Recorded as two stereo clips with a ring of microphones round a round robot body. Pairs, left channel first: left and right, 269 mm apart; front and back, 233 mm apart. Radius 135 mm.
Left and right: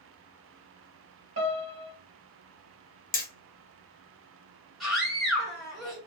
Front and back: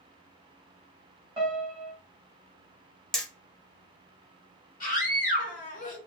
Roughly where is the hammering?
Left.